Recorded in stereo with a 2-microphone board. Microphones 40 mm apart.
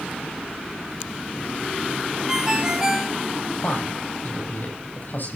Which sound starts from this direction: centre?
A ringtone, at 2.3 s.